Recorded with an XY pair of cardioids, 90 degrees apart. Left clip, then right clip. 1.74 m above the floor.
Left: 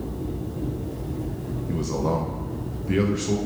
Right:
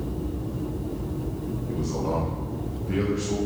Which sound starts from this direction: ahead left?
A man speaking, at 1.7 s.